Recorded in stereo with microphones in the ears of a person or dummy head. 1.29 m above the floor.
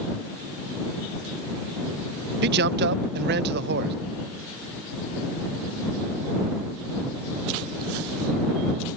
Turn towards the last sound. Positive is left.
turn(degrees=-60)  # may be behind; listen again after turning